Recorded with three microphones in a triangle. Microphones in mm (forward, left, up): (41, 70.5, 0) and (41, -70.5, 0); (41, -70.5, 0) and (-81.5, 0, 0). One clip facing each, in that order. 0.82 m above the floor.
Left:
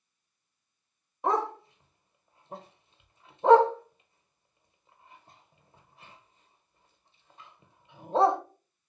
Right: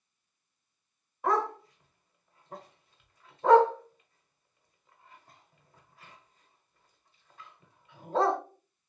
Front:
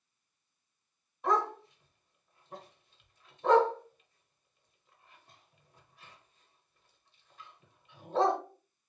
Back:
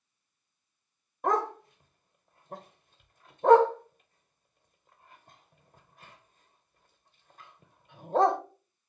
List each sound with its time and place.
1.2 s a dog barking: 145° left, 0.7 m